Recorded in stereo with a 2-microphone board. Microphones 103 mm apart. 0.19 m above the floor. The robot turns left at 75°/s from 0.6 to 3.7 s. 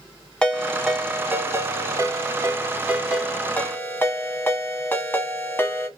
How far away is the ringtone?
About 0.7 m.